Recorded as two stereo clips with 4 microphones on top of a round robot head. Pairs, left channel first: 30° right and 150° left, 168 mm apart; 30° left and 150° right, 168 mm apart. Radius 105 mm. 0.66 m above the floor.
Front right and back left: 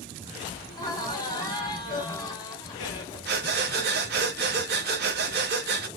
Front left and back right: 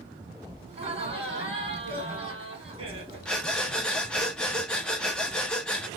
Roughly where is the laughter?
Right.